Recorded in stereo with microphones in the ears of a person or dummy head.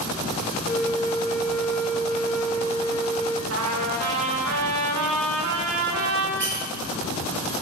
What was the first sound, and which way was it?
A flute, 5° left (ahead or behind).